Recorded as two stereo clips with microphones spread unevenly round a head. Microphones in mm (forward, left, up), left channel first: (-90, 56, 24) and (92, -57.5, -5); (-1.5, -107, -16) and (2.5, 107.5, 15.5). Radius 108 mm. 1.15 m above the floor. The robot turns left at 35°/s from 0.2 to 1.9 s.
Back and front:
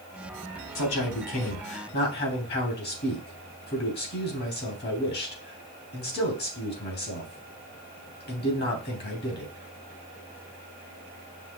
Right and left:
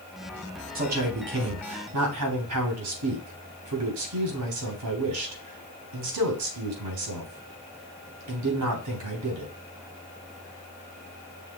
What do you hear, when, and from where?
0.8 s a man speaking: 140° left, 3 m; by 9.5 s 100° left, 3 m